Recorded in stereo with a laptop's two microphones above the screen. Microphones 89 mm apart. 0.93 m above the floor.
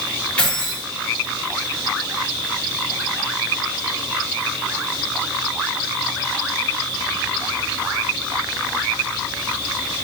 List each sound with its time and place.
0.4 s keys jangling: 15° left (ahead or behind), 1.6 m